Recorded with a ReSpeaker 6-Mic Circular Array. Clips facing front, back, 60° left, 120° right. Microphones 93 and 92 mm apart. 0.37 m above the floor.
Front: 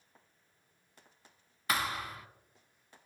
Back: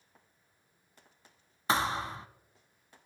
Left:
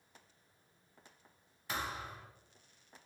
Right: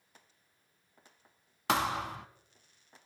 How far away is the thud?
About 0.5 m.